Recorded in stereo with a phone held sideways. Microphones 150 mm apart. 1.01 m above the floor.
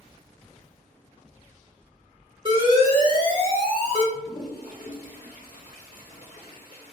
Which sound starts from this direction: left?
A toilet flushing, at 4.1 s.